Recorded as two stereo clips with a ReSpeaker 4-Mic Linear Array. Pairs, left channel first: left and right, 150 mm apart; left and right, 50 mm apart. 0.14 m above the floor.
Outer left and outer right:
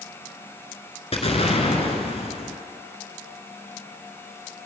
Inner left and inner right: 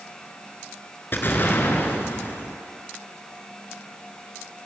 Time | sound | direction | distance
1.1 | an explosion | 45° left (ahead or behind) | 0.9 m